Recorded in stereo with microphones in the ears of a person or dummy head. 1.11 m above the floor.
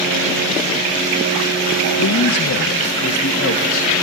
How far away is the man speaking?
About 1.6 m.